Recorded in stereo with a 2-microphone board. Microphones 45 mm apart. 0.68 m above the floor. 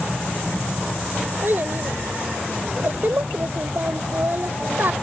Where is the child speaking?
55° right (ahead or behind).